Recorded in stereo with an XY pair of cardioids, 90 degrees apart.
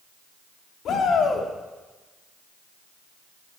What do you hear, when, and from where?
0.8 s a shout: 70° left, 3 m